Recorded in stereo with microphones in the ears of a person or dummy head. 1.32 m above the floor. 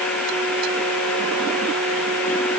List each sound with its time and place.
Only background noise.